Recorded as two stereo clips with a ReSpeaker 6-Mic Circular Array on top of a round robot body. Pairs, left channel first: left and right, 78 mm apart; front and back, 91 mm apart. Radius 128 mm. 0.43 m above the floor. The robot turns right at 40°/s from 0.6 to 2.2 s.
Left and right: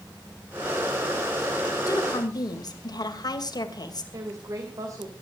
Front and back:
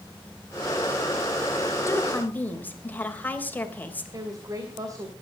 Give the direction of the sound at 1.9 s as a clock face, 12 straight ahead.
10 o'clock.